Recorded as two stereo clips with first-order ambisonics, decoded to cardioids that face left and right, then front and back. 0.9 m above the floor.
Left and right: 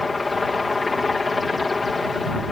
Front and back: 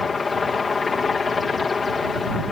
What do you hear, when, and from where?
0.0 s a helicopter: 30° left